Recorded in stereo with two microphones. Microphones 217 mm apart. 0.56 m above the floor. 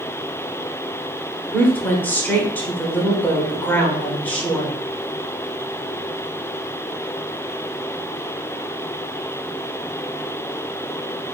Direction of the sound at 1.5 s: 10° left (ahead or behind).